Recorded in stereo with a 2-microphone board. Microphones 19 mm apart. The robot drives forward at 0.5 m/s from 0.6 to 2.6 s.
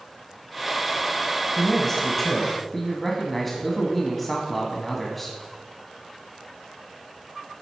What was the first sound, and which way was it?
A man speaking, 10° left (ahead or behind).